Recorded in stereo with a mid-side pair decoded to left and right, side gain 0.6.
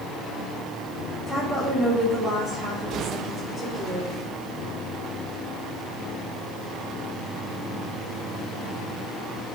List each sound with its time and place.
1.3 s a woman speaking: 10° right, 3 m